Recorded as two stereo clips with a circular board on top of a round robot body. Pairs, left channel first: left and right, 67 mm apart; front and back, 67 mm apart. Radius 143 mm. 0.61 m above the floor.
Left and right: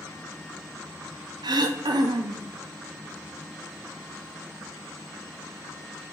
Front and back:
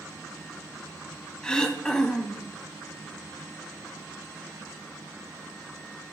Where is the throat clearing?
80° right, 0.5 m.